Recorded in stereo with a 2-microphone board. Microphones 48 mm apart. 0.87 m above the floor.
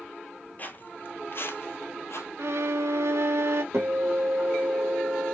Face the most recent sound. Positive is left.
turn(degrees=-75)  # may be behind; listen again after turning